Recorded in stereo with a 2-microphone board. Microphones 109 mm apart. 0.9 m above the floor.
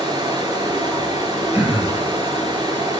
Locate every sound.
0.0 s running water: 45° right (ahead or behind), 5.5 m
1.5 s throat clearing: 15° right (ahead or behind), 7 m